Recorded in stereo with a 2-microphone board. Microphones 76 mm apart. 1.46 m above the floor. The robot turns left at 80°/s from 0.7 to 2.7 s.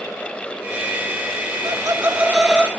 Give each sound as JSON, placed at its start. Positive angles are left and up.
{"t": 1.6, "sound": "laughter", "azimuth_deg": -115, "distance_m": 3.0}